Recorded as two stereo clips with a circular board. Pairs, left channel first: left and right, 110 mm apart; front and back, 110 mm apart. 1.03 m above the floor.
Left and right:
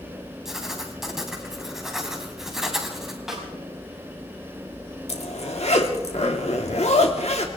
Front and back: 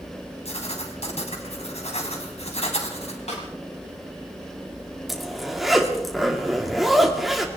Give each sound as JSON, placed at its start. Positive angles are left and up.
{"t": 0.5, "sound": "writing", "azimuth_deg": -5, "distance_m": 3.0}
{"t": 3.3, "sound": "a snare drum", "azimuth_deg": -5, "distance_m": 5.5}
{"t": 5.1, "sound": "a zipper", "azimuth_deg": 90, "distance_m": 2.0}